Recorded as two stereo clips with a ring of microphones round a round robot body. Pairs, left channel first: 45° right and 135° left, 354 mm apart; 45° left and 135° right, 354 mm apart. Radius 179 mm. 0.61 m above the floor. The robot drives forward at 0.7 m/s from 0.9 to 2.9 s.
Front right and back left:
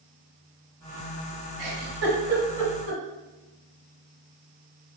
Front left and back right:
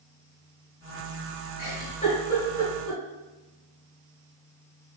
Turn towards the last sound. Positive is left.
turn(degrees=130)